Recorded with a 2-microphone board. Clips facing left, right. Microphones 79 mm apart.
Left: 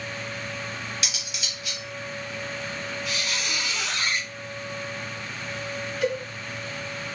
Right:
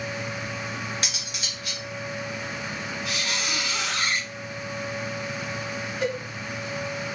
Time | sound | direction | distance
1.0 | cutlery clinking | 40° right (ahead or behind) | 0.8 m
3.0 | a squeak | 55° right (ahead or behind) | 1.1 m
6.0 | a cowbell | 40° right (ahead or behind) | 1.8 m